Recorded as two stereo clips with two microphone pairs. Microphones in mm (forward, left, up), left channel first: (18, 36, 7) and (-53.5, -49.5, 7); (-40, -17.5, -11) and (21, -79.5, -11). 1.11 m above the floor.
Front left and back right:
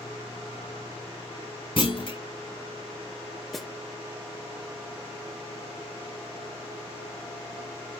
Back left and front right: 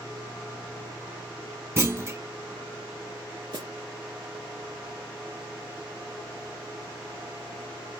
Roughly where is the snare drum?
Ahead right.